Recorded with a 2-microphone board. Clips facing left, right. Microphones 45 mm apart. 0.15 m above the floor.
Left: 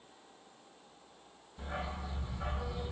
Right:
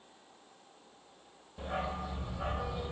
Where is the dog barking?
55° right (ahead or behind), 1.2 m.